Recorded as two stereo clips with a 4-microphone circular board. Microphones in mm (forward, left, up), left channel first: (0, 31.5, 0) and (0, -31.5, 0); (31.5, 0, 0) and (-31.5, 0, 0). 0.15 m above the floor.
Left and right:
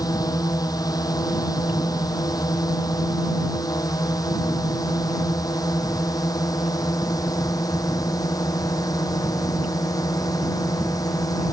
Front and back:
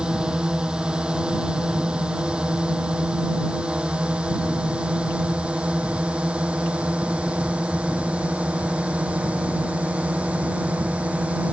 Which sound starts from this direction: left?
A drone, at 0.0 s.